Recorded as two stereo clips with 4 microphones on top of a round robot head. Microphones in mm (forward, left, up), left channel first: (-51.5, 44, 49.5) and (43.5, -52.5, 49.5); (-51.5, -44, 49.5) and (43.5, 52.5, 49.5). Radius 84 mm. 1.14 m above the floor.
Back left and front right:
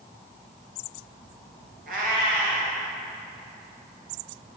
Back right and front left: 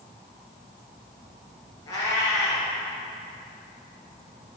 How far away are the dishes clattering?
No dishes clattering in this recording.